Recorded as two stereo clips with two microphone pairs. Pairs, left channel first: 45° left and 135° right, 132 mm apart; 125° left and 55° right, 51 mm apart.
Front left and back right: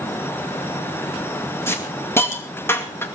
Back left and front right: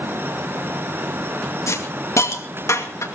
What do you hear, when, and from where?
1.7 s a hiss: 115° left, 2.5 m